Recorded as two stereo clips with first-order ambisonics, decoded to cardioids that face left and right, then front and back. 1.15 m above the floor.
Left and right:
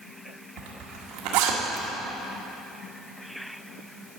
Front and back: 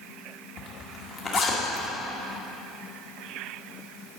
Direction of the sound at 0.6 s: 70° right.